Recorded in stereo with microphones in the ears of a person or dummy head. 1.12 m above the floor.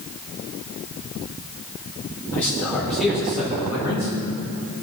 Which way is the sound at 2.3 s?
10° left (ahead or behind).